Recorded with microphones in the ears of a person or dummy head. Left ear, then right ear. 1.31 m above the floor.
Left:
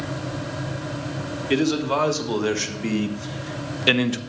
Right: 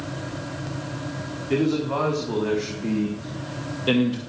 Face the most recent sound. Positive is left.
turn(degrees=45)  # may be behind; listen again after turning